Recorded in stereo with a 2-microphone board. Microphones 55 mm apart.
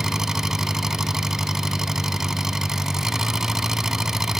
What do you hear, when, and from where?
0.0 s an engine running: 10° right (ahead or behind)